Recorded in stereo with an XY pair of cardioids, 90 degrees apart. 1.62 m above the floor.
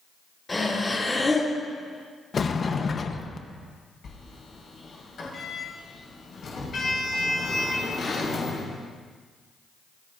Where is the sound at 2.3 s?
40° left, 1.3 m.